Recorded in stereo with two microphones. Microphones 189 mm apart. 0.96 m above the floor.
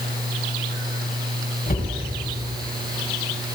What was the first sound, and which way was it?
A cupboard door, 45° left (ahead or behind).